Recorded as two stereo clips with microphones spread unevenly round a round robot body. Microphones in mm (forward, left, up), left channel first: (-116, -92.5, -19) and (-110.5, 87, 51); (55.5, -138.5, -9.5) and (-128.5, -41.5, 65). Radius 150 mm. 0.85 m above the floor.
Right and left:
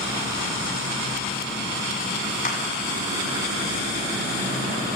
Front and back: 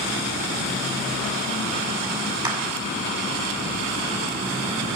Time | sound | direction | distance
2.4 | a clap | 135° right | 7 m